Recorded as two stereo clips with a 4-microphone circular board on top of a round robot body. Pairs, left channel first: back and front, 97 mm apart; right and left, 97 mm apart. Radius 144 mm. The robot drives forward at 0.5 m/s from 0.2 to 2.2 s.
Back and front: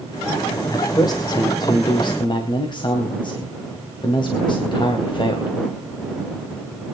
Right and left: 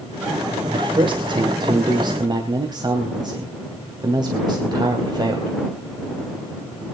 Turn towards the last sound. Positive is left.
turn(degrees=140)